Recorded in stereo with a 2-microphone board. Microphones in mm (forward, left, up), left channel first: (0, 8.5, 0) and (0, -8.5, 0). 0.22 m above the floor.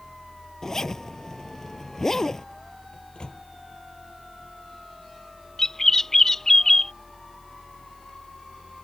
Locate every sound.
0.6 s a zipper: 25° left (ahead or behind)
2.9 s a microwave: 55° left (ahead or behind)
5.6 s a bird: 25° left (ahead or behind)